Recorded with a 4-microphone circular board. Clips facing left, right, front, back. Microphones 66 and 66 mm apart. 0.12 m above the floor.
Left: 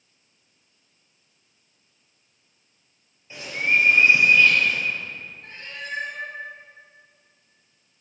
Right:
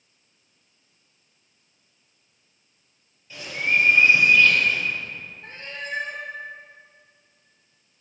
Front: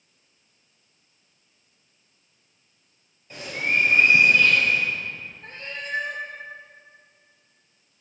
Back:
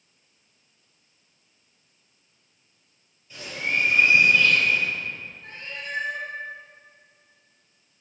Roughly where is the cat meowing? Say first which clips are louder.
Right 2 dB, front 2 dB; ahead right.